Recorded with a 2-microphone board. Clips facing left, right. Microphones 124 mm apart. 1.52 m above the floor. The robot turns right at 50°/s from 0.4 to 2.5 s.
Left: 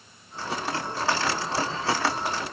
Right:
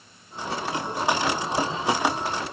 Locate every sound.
Only background noise.